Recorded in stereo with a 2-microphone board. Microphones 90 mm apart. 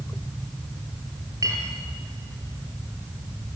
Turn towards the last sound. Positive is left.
turn(degrees=-45)  # may be behind; listen again after turning